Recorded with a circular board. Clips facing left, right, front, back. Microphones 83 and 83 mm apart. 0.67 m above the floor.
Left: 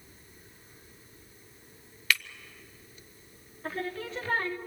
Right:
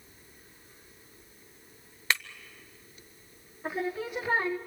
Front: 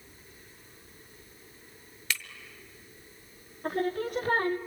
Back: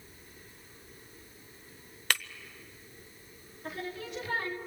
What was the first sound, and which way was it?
Breaking glass, 150° right.